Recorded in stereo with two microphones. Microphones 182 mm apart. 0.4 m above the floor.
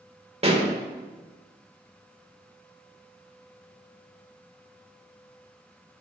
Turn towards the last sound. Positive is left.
turn(degrees=-35)  # may be behind; listen again after turning